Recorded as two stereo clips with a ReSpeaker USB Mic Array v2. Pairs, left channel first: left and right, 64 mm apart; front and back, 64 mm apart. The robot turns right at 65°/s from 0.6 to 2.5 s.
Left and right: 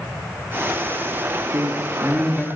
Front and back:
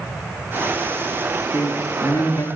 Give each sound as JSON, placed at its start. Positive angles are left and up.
{"t": 1.5, "sound": "a man speaking", "azimuth_deg": -50, "distance_m": 4.5}